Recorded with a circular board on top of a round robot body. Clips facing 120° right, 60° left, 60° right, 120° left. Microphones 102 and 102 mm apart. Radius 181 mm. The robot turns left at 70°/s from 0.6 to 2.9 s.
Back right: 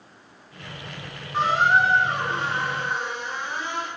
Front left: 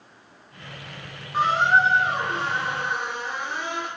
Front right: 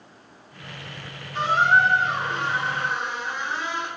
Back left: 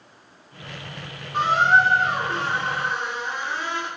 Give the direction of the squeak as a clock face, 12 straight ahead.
7 o'clock.